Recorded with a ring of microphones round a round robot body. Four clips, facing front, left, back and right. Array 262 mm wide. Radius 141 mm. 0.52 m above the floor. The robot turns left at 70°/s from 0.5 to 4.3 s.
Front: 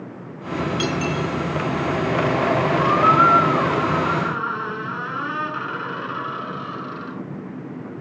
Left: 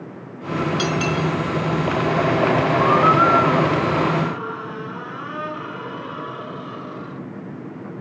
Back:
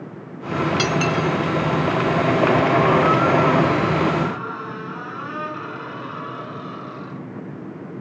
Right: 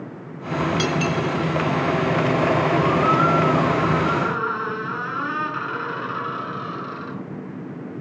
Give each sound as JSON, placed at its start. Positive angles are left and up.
{"t": 0.8, "sound": "cutlery clinking", "azimuth_deg": -175, "distance_m": 4.5}
{"t": 2.8, "sound": "a squeak", "azimuth_deg": 50, "distance_m": 4.5}